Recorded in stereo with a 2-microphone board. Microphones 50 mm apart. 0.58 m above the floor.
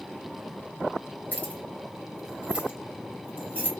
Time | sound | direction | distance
1.3 | keys jangling | 30° left (ahead or behind) | 0.6 m